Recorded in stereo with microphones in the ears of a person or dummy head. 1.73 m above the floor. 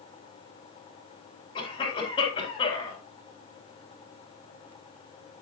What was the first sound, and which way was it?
A cough, 30° left (ahead or behind).